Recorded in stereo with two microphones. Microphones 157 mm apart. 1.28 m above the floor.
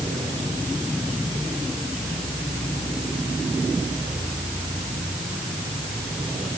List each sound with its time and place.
Only background noise.